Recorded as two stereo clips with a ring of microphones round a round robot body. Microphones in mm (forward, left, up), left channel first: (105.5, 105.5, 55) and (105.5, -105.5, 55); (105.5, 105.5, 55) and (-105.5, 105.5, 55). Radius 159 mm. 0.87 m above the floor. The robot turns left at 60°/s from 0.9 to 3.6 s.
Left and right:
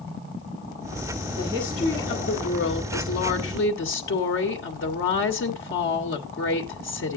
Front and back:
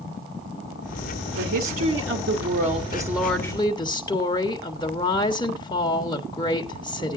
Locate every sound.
1.4 s a woman speaking: 155° right, 1.4 m; by 7.2 s 70° left, 1.4 m